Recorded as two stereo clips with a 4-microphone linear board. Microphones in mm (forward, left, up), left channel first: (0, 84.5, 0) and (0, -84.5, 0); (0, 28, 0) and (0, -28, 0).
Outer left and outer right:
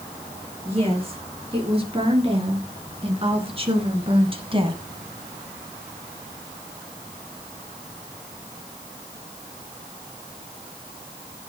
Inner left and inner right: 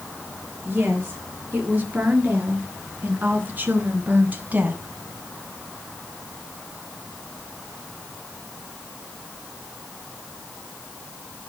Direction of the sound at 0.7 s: 35° right (ahead or behind).